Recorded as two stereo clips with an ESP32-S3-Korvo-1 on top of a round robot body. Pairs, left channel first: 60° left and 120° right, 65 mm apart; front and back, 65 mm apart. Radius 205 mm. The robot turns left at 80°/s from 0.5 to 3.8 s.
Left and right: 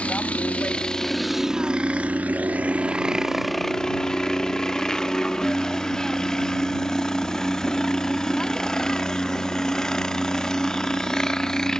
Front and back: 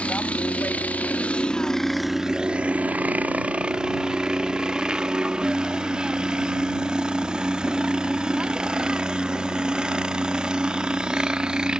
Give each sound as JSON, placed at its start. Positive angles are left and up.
{"t": 0.0, "sound": "a helicopter", "azimuth_deg": 30}